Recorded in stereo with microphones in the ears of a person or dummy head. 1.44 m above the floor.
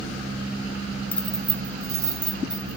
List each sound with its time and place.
1.1 s keys jangling: 10° left (ahead or behind), 0.6 m; by 2.8 s 35° right (ahead or behind), 1.7 m